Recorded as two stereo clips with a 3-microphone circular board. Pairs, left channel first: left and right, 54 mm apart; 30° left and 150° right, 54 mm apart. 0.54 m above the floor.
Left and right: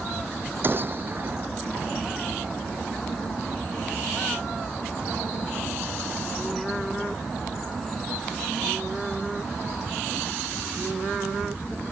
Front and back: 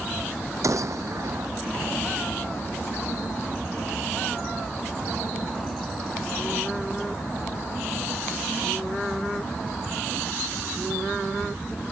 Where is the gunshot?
135° right.